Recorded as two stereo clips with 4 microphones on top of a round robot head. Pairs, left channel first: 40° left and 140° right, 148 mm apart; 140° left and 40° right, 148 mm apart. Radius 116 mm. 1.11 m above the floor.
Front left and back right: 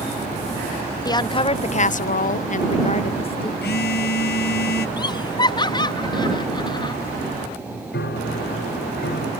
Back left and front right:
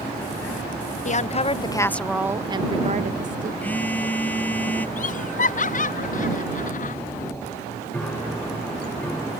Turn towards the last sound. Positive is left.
turn(degrees=55)